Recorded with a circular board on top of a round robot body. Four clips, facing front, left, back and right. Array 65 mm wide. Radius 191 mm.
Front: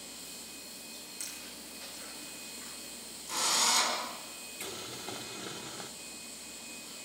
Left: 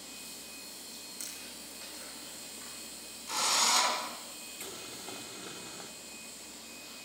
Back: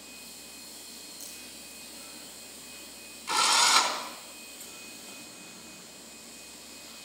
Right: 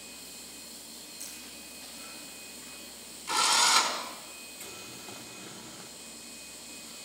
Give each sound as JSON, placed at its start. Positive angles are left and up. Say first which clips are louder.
{"t": 0.9, "sound": "chewing", "louder": "even, front 1 dB", "azimuth_deg": 50, "distance_m": 7.5}
{"t": 3.3, "sound": "a drill", "louder": "right 5 dB, back 8 dB", "azimuth_deg": -155, "distance_m": 5.5}
{"t": 4.6, "sound": "boiling", "louder": "left 2 dB, front 6 dB", "azimuth_deg": 20, "distance_m": 1.5}